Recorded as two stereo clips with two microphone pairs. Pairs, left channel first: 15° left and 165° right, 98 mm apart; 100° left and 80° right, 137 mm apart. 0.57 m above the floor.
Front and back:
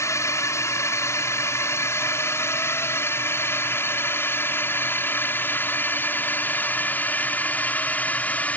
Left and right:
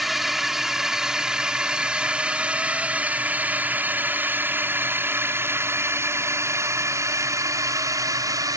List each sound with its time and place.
0.0 s a drone: 10° left; by 8.6 s 45° right